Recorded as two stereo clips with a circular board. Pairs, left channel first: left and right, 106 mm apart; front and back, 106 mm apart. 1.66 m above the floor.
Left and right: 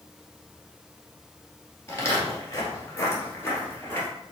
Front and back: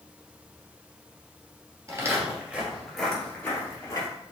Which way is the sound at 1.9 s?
140° left.